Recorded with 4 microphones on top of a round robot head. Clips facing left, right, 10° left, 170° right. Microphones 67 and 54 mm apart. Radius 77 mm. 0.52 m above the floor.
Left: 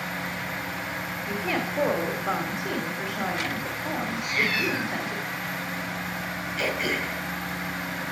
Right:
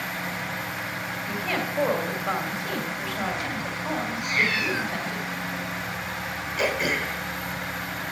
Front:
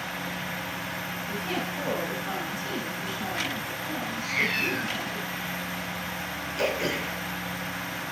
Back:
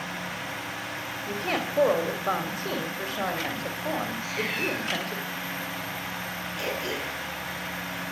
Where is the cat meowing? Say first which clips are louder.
Right 1 dB, front 2 dB; 30° right, 3.5 m.